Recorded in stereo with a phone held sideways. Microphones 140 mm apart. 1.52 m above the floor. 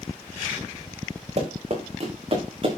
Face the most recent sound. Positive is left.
turn(degrees=-40)  # may be behind; listen again after turning